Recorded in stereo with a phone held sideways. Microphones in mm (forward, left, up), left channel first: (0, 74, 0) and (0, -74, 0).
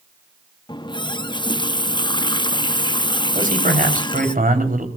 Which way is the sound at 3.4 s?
70° right (ahead or behind).